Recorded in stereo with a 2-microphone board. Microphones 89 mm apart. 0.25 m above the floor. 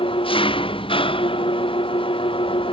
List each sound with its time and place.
0.0 s an engine running: 75° left (ahead or behind)